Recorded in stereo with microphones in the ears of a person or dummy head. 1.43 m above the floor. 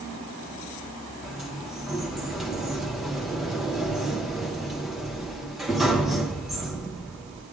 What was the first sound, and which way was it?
A sliding door, 5° right (ahead or behind).